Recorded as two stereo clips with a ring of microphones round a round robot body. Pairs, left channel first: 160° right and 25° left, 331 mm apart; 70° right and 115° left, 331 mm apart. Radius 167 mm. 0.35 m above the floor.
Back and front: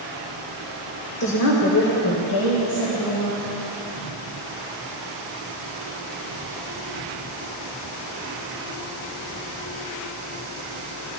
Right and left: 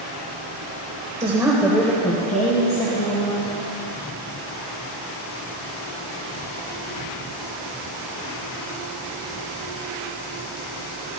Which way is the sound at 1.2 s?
175° left.